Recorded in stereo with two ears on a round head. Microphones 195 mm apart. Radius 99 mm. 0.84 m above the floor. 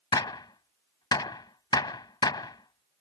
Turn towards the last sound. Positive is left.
turn(degrees=20)  # may be behind; listen again after turning